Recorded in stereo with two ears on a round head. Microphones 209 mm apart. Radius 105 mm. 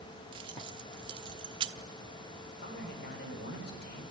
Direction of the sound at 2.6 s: 45° left (ahead or behind).